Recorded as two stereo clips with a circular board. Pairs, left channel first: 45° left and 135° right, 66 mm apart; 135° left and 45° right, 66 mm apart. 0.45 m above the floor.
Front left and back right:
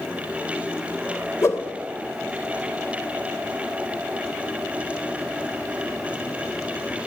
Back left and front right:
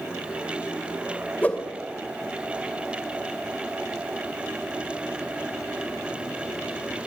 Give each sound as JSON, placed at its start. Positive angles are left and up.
{"t": 1.4, "sound": "a whoosh", "azimuth_deg": 75, "distance_m": 2.0}